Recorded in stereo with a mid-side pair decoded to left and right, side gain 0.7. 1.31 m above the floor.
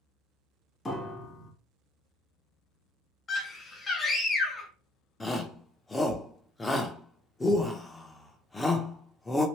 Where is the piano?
20° left, 1.3 m.